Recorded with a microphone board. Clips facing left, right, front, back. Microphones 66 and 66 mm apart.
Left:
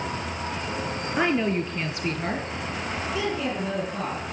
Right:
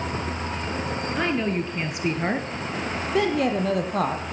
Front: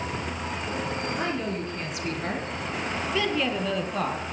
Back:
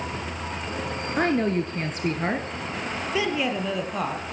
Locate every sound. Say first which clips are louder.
1.2 s a woman speaking: left 2 dB, back 6 dB; 160° left, 1.9 m; by 4.3 s 90° right, 4 m